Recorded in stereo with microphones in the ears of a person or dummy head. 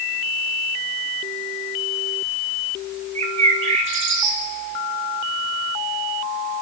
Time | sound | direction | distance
3.1 | a bird | 45° right (ahead or behind) | 1.6 m